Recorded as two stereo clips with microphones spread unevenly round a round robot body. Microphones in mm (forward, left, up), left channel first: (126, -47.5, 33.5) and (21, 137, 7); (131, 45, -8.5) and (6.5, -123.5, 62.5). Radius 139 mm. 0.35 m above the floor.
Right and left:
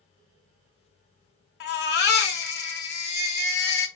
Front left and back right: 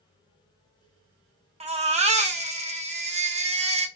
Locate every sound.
1.6 s a baby crying: 55° right, 0.9 m